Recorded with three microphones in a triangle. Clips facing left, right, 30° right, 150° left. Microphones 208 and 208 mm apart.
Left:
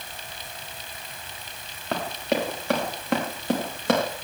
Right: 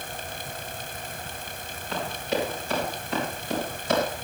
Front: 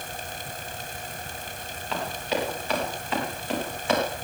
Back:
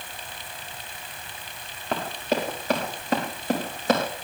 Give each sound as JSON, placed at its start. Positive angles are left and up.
{"t": 1.9, "sound": "running footsteps", "azimuth_deg": 110, "distance_m": 6.0}